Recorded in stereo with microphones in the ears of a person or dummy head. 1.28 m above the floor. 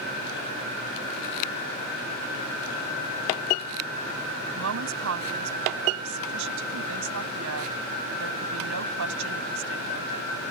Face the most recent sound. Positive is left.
turn(degrees=-75)  # may be behind; listen again after turning